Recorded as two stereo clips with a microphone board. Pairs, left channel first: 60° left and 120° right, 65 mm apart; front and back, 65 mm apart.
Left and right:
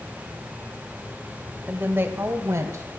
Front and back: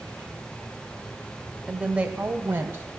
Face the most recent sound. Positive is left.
turn(degrees=-135)